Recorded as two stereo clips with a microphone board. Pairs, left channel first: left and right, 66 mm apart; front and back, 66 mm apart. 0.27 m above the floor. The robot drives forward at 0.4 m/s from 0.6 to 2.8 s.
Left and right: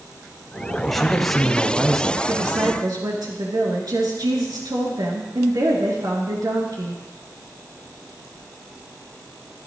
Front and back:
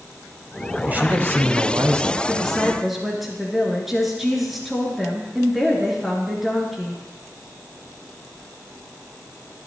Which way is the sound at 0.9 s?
170° left.